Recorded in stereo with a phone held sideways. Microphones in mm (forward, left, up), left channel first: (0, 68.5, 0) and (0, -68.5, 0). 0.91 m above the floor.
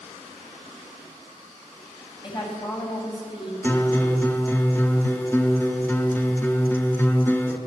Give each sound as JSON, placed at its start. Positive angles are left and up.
{"t": 2.2, "sound": "a woman speaking", "side_deg": 30, "distance_m": 6.0}
{"t": 3.6, "sound": "a guitar", "side_deg": 15, "distance_m": 2.0}